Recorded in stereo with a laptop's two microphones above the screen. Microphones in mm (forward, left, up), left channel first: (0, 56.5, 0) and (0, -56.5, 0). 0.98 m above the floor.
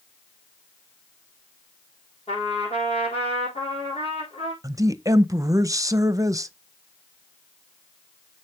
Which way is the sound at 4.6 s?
30° right (ahead or behind).